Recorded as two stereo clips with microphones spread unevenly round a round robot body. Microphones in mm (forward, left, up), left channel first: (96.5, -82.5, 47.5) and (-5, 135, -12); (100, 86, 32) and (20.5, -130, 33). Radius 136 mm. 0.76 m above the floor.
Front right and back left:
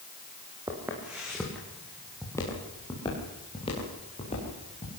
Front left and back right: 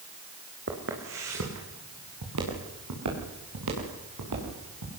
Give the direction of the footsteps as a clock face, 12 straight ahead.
5 o'clock.